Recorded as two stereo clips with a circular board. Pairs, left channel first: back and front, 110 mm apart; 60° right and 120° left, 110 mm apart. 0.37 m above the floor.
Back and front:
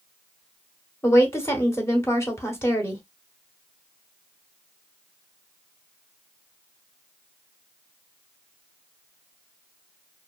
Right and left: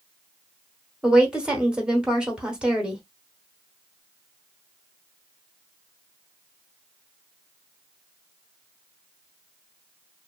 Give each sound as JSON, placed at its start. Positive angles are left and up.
{"t": 1.0, "sound": "a woman speaking", "azimuth_deg": -170, "distance_m": 1.0}